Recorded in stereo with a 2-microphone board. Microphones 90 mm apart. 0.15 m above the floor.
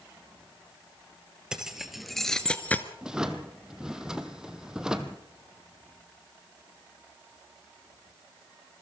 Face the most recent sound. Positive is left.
turn(degrees=-5)  # may be behind; listen again after turning